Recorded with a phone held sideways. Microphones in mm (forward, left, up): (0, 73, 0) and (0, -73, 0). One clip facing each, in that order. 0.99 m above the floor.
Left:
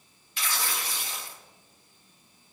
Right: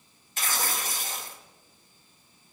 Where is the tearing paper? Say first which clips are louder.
Right 2 dB; 45° right (ahead or behind), 1.4 m.